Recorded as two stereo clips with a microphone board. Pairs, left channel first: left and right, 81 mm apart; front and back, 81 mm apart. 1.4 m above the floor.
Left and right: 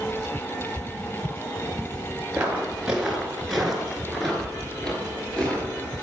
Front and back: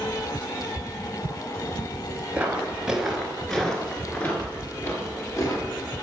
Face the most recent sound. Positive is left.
turn(degrees=20)